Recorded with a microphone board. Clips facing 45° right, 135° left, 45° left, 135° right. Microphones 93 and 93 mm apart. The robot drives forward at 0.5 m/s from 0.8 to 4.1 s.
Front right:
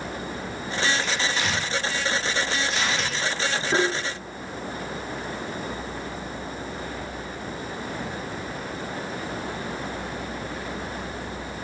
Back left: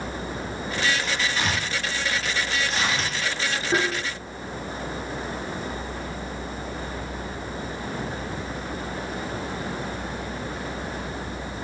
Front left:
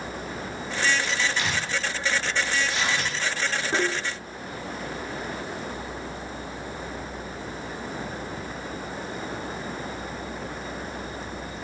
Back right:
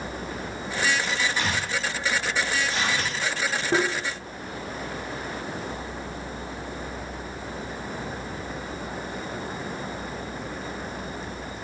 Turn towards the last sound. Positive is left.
turn(degrees=-140)